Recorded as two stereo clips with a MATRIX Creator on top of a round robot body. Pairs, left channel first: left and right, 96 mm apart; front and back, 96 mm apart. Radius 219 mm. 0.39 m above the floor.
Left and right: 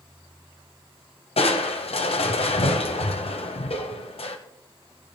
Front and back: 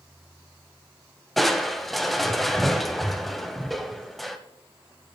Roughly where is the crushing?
Left.